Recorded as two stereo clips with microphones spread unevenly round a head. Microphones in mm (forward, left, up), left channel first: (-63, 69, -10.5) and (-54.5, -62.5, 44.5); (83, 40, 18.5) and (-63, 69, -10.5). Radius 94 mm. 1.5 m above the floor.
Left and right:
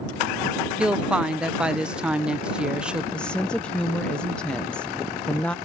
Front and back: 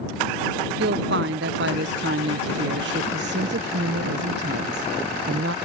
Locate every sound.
0.8 s a woman speaking: 165° right
3.1 s a woman speaking: 175° right